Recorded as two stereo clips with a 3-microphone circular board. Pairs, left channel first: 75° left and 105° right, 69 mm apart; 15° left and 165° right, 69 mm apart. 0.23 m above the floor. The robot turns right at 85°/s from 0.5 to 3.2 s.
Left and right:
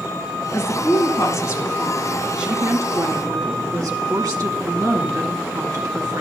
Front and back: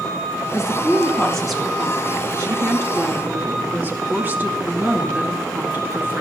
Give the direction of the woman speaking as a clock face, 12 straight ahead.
11 o'clock.